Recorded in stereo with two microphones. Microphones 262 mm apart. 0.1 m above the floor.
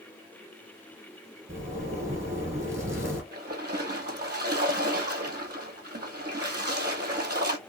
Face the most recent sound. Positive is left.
turn(degrees=-35)  # may be behind; listen again after turning